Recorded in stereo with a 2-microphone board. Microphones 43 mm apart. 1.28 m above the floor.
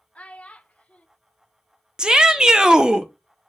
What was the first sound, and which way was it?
A child speaking, 30° left (ahead or behind).